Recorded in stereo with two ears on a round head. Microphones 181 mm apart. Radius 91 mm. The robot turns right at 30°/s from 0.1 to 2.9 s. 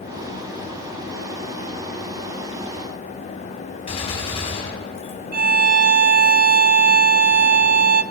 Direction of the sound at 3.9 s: 30° left (ahead or behind).